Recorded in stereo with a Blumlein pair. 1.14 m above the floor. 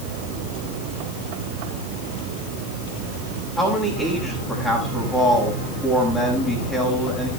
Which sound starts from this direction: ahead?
A man speaking, at 3.6 s.